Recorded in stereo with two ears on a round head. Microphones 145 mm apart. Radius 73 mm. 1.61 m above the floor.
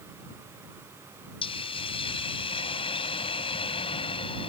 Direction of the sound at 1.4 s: 35° left (ahead or behind).